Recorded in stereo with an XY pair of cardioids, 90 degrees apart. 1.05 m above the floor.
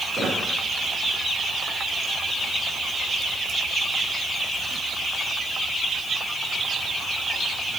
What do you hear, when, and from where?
0.1 s a squeak: 45° right, 3 m